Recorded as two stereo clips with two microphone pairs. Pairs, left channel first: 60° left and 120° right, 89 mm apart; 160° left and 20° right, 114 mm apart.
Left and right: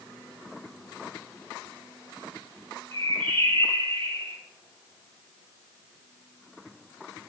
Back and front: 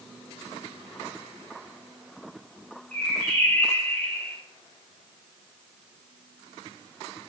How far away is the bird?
About 5.5 m.